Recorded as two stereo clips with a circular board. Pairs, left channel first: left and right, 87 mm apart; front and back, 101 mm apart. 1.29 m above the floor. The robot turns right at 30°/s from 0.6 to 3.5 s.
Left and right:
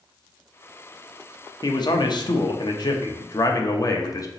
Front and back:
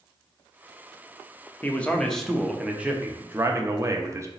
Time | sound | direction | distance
1.6 | a man speaking | 70° left | 0.7 m